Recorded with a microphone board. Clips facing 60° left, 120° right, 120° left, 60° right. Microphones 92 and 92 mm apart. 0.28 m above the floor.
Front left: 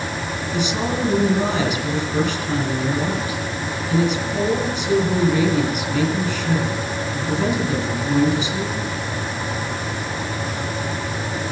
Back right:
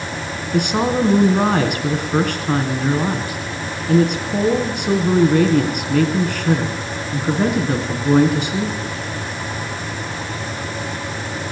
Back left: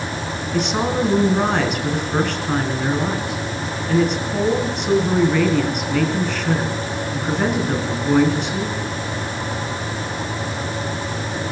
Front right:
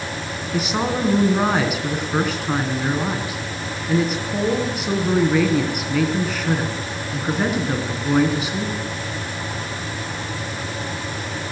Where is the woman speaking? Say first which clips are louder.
Back right 6 dB, back left 2 dB; 145° right, 3 m.